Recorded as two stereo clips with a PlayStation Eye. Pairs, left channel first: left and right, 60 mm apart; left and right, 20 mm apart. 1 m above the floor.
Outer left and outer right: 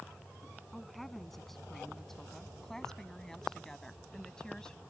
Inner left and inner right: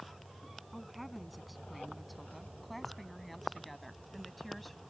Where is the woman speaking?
Centre (ahead or behind); by 4.8 s 10° left (ahead or behind).